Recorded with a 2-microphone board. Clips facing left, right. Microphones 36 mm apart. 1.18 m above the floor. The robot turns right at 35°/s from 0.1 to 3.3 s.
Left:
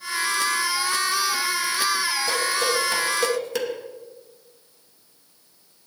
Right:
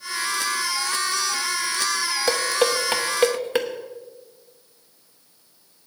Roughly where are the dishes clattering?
Right.